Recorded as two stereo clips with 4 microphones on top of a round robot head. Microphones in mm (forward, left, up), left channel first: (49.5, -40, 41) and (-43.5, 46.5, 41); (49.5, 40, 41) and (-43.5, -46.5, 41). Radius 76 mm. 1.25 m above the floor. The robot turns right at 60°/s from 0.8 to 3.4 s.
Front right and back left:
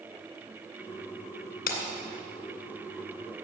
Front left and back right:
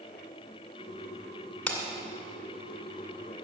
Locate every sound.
1.7 s breaking glass: 40° right, 2 m; by 1.8 s 30° right, 2 m